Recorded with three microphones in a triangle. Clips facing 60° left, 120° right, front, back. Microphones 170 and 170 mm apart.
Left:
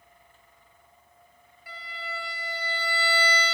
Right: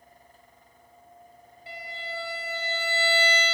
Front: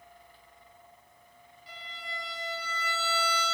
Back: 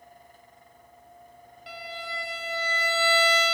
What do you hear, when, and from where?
1.7 s a violin: 175° left, 2.5 m